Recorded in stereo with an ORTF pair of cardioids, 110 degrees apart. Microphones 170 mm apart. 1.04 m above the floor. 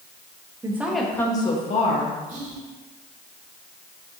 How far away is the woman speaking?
About 1.1 m.